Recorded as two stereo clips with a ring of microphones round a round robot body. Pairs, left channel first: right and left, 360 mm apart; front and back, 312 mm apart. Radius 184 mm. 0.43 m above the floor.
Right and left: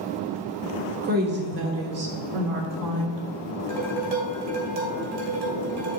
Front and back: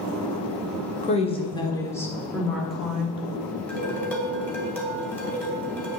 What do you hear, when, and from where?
1.0 s a woman speaking: 45° left, 1.4 m; by 3.2 s 95° left, 2 m
3.7 s dishes clattering: 85° left, 2.5 m